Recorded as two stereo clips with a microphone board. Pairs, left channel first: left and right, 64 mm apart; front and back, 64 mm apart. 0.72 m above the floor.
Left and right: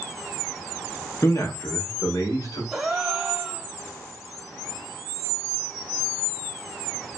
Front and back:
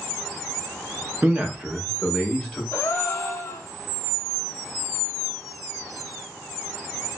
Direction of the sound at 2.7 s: 20° right.